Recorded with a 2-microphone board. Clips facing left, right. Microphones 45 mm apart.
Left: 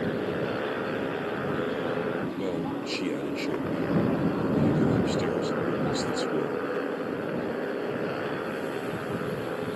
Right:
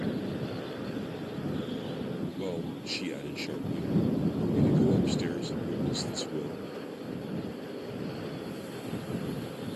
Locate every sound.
0.0 s a motorcycle: 45° left (ahead or behind); by 9.8 s 55° left (ahead or behind)
2.4 s a man speaking: 15° left (ahead or behind)